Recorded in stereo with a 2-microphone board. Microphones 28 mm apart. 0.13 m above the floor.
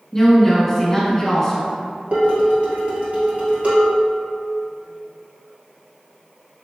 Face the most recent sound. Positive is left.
turn(degrees=-50)  # may be behind; listen again after turning